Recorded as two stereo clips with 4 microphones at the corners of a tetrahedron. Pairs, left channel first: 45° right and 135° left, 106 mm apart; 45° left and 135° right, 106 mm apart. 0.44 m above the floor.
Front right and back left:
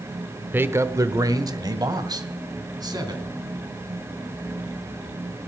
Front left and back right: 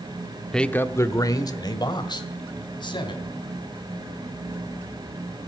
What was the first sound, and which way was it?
A man speaking, 120° left.